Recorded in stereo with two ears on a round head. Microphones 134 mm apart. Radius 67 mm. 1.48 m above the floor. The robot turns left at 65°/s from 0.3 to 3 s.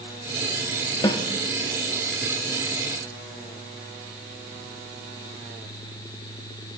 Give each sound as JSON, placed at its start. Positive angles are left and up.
{"t": 1.0, "sound": "a snare drum", "side_deg": 25, "distance_m": 1.0}